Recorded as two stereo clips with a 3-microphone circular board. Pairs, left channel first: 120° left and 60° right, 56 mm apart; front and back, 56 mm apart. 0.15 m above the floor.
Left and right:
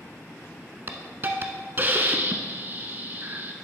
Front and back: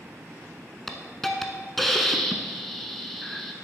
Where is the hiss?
85° right, 0.8 m.